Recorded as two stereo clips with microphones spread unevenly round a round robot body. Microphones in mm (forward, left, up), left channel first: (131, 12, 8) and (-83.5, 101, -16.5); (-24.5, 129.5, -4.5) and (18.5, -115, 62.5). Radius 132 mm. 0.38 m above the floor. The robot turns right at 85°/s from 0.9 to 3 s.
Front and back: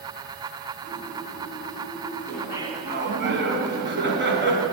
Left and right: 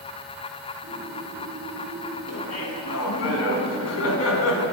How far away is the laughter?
About 3 m.